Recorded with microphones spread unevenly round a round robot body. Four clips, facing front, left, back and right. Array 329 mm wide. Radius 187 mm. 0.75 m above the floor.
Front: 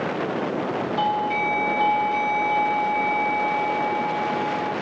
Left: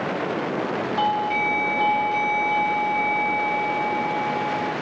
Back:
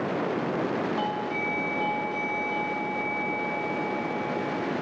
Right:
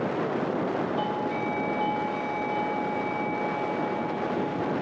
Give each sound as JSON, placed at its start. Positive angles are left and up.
{"t": 1.0, "sound": "a doorbell", "azimuth_deg": 60, "distance_m": 9.0}